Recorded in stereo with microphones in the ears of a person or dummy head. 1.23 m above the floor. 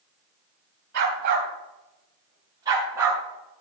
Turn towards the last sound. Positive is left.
turn(degrees=-10)  # may be behind; listen again after turning